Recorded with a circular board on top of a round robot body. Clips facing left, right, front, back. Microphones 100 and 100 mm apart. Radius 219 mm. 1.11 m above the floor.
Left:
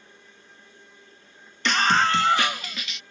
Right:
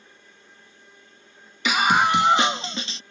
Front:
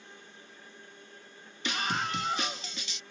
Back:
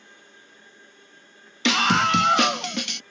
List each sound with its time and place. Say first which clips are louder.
1.6 s a scream: right 2 dB, back 12 dB; 175° right; by 3.0 s 150° right